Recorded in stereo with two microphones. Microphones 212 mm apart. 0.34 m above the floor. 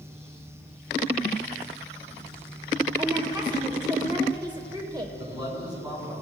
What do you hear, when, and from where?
3.0 s a woman speaking: 20° right (ahead or behind), 0.9 m
5.2 s a man speaking: 20° right (ahead or behind), 4 m